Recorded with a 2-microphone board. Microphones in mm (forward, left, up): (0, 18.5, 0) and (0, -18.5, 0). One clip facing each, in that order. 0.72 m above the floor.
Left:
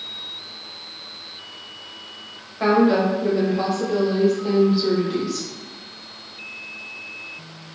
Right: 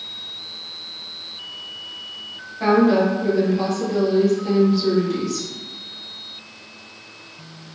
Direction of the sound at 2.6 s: 20° left (ahead or behind).